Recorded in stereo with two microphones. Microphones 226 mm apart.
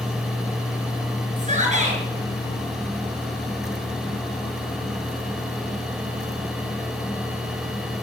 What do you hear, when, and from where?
1.4 s a shout: 30° right (ahead or behind), 5 m